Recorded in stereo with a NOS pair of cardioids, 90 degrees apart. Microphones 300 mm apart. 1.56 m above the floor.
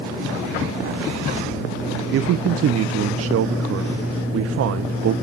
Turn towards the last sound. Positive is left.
turn(degrees=-55)